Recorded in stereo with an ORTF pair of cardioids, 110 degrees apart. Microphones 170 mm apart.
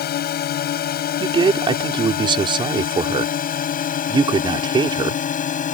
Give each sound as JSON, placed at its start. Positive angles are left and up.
{"t": 0.0, "sound": "a drone", "azimuth_deg": 65}
{"t": 1.2, "sound": "a man speaking", "azimuth_deg": -30}